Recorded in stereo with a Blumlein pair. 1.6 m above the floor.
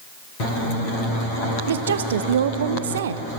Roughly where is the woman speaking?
Ahead right.